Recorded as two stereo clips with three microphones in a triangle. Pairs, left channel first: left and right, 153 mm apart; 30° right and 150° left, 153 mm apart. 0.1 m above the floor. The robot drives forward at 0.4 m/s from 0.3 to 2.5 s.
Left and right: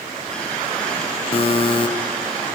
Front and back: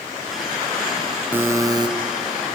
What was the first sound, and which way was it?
A buzzer, 80° left.